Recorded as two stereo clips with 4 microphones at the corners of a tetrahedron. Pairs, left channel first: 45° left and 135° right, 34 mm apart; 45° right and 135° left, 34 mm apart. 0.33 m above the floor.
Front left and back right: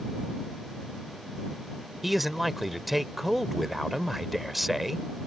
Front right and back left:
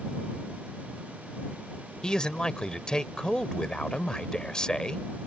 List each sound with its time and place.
2.0 s a man speaking: 60° right